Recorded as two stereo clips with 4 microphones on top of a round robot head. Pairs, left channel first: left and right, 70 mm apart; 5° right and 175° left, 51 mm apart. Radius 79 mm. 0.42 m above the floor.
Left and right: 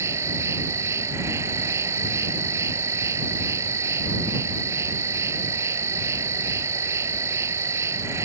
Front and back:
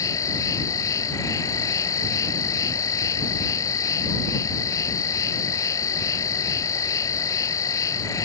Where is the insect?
35° right.